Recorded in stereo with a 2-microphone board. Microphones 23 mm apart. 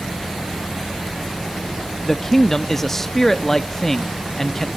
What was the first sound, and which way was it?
A man speaking, 15° left (ahead or behind).